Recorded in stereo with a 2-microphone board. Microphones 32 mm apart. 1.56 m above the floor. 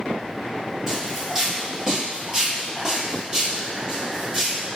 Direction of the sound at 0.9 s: 10° right (ahead or behind).